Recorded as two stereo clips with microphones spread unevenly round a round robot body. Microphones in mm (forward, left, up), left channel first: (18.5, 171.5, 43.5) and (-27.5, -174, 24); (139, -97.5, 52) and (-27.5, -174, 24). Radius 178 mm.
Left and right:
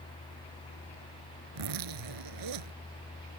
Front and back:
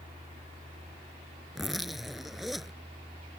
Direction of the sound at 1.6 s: 65° right.